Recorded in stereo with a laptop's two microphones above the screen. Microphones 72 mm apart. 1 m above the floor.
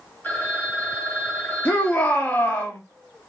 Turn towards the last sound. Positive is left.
turn(degrees=30)  # may be behind; listen again after turning